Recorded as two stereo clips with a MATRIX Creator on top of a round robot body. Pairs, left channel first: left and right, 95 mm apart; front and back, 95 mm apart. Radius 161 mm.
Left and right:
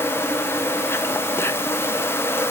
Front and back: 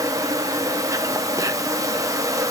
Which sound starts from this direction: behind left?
An insect, at 0.0 s.